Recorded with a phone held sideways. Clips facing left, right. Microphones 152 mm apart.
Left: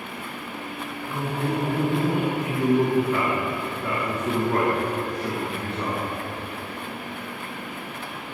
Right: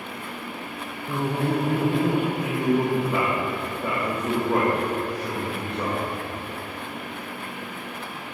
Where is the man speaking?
15° right (ahead or behind), 1.3 m.